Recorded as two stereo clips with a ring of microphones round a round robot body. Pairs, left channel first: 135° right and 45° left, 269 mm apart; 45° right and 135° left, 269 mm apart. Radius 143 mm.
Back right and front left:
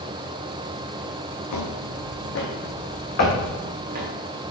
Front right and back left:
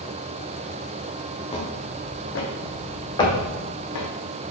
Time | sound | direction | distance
1.5 | footsteps | 115° right | 2.5 m
3.2 | knocking | 120° right | 1.7 m